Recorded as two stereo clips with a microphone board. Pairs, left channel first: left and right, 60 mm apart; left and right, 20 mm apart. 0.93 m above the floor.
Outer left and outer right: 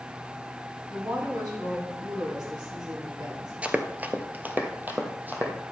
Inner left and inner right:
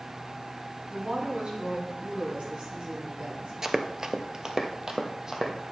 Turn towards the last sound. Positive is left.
turn(degrees=-30)  # may be behind; listen again after turning